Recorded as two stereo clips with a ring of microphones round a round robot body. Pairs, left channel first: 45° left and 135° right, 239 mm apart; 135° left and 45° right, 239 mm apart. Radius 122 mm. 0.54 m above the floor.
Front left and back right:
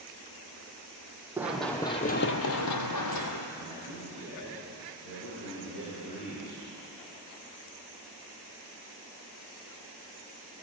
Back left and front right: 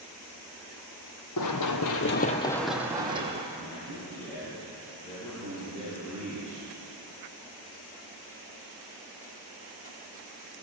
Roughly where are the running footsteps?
Behind left.